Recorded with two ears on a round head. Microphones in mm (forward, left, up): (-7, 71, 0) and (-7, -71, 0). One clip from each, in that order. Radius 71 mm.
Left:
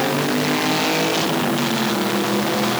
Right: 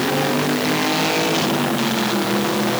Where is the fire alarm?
I don't hear a fire alarm.